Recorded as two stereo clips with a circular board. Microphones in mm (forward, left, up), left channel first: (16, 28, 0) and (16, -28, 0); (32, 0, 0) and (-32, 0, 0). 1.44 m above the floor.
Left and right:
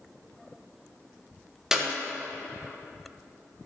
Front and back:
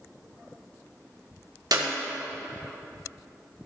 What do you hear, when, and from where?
1.7 s a clap: 170° right, 1.6 m